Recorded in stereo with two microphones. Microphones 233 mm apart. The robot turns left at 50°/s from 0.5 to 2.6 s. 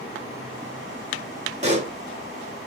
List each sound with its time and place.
1.6 s a pop: 30° right (ahead or behind), 1.2 m